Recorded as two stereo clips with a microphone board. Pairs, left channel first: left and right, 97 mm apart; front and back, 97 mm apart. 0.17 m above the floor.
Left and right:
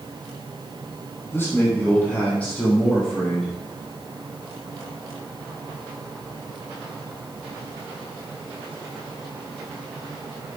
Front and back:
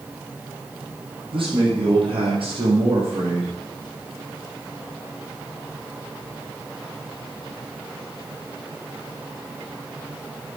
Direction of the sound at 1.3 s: 160° left.